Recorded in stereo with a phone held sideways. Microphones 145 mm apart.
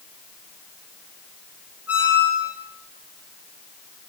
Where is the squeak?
10° right (ahead or behind), 3 m.